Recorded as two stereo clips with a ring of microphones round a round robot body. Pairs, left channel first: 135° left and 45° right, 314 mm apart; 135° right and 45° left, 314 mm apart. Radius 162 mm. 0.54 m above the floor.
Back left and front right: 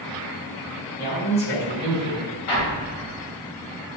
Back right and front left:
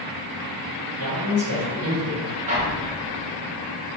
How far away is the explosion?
About 1.1 m.